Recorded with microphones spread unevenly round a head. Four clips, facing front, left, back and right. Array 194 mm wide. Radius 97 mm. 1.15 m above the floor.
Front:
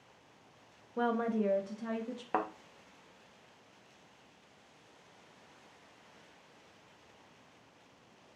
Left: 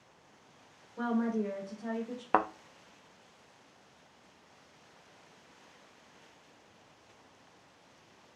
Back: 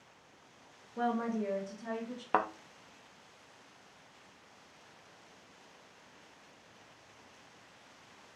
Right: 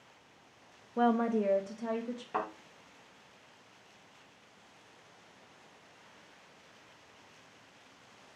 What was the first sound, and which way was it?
A woman speaking, 75° right.